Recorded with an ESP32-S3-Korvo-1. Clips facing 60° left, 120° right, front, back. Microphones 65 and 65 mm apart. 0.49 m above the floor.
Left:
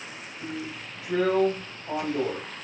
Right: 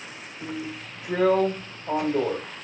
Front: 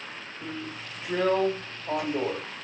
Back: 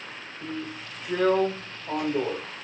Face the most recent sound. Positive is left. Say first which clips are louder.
# right 2 dB, back 3 dB
turn(degrees=-85)